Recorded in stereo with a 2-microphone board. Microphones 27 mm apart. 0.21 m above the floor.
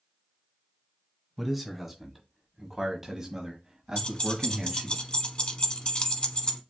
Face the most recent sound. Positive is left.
turn(degrees=40)  # may be behind; listen again after turning